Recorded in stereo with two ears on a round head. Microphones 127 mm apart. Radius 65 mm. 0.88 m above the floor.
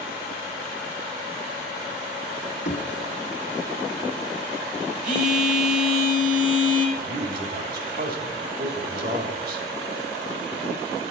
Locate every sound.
2.6 s knocking: 50° left (ahead or behind), 1.3 m
5.0 s a phone buzzing: 55° right (ahead or behind), 1.4 m
7.0 s a man speaking: 65° right (ahead or behind), 1.5 m